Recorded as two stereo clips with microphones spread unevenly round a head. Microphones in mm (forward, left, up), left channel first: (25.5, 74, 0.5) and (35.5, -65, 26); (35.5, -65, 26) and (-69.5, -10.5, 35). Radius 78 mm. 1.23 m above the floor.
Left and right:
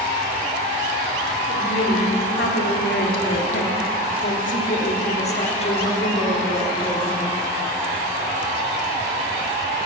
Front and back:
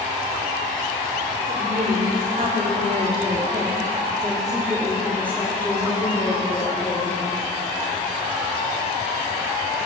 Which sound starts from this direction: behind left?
A woman speaking, at 1.5 s.